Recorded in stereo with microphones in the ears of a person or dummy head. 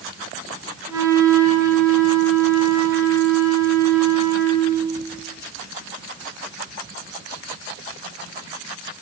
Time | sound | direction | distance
0.9 | a flute | 20° right (ahead or behind) | 9 m